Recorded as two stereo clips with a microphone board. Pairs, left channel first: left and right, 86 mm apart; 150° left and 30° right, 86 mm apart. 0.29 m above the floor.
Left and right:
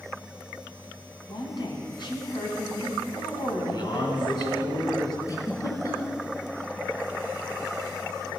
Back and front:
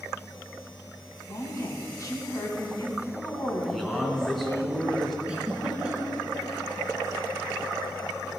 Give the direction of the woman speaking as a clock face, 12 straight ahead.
8 o'clock.